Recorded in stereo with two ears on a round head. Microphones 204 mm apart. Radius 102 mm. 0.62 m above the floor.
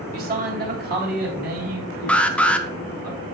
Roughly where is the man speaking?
Right.